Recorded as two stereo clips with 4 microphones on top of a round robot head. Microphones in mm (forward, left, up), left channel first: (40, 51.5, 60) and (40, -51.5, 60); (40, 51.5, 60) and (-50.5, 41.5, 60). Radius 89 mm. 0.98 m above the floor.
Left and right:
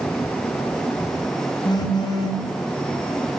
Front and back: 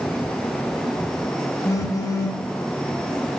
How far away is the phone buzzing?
About 0.9 m.